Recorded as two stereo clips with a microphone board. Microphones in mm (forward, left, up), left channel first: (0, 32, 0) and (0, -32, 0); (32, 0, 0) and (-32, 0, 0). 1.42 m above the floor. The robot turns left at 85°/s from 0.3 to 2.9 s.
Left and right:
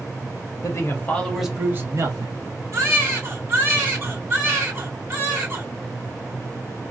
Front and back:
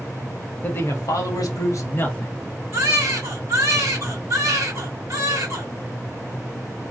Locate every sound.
0.6 s a man speaking: 65° left, 1.2 m; by 2.4 s 85° right, 1.2 m
2.7 s a baby crying: 130° right, 1.8 m; by 5.7 s 145° right, 1.8 m